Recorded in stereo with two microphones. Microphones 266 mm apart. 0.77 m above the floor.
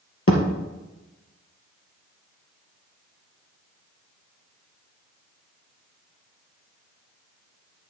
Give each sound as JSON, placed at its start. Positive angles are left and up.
{"t": 0.3, "sound": "a thud", "side_deg": 55, "distance_m": 2.0}